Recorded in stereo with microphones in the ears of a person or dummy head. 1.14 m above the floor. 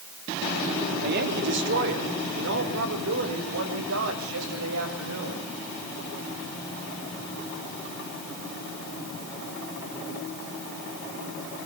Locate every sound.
1.0 s a woman speaking: 55° right (ahead or behind), 3 m; by 5.4 s 80° right, 7.5 m